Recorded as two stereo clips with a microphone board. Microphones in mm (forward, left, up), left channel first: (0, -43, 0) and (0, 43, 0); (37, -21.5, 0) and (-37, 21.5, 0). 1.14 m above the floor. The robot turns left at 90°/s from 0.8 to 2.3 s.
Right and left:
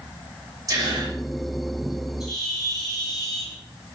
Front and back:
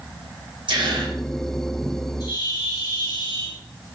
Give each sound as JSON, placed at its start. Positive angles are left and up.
{"t": 0.7, "sound": "a gasp", "azimuth_deg": 135, "distance_m": 6.0}
{"t": 2.2, "sound": "a bird", "azimuth_deg": 5, "distance_m": 6.5}